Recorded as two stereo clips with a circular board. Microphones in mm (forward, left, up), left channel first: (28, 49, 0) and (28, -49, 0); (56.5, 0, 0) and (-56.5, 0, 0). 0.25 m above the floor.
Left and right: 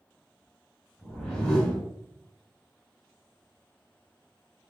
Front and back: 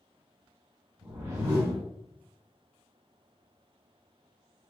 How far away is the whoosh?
About 1.3 m.